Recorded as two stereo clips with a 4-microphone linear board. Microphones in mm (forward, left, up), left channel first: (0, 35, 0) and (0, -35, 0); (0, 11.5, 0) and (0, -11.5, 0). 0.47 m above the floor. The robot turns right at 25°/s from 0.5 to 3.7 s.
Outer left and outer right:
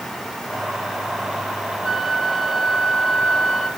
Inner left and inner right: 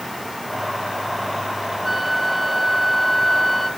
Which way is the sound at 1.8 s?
15° left.